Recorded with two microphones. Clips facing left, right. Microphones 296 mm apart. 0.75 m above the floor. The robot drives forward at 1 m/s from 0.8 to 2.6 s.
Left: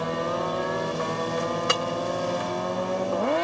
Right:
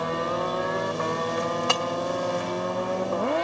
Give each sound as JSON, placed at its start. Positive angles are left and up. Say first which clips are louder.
{"t": 1.7, "sound": "breaking glass", "louder": "left 1 dB", "side_deg": 20, "distance_m": 2.0}